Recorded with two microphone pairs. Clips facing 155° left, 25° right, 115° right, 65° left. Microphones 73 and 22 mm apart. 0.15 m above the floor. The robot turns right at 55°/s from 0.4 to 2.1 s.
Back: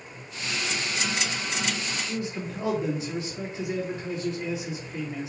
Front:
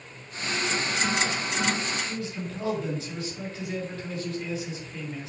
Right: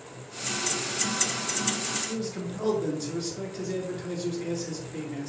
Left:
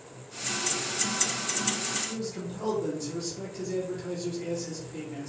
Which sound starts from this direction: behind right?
A man speaking, at 2.1 s.